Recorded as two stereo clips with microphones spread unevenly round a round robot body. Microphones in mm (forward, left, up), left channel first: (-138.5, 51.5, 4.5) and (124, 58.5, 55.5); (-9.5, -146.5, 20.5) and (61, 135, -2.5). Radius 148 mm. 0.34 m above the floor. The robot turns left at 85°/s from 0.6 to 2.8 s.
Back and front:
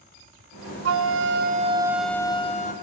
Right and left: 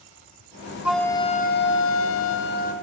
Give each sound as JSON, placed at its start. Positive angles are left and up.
{"t": 0.8, "sound": "a flute", "azimuth_deg": 0, "distance_m": 1.0}